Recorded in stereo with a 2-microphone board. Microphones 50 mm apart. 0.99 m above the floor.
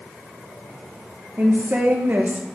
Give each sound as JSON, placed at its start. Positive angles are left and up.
{"t": 1.4, "sound": "a woman speaking", "side_deg": -45, "distance_m": 0.9}